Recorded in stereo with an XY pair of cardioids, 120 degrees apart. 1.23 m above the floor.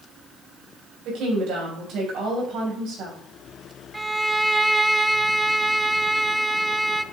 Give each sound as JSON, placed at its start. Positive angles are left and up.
{"t": 1.1, "sound": "a woman speaking", "azimuth_deg": -65, "distance_m": 5.5}
{"t": 3.9, "sound": "a violin", "azimuth_deg": -10, "distance_m": 0.6}